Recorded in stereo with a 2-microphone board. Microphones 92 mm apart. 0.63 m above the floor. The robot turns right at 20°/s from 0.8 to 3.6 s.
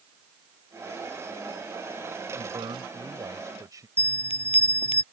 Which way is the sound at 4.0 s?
85° left.